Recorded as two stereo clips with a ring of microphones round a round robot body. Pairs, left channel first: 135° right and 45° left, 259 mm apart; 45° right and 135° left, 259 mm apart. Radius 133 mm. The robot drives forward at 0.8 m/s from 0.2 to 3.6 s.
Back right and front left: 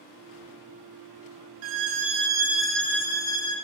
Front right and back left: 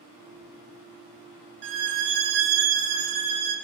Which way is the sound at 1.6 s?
85° left.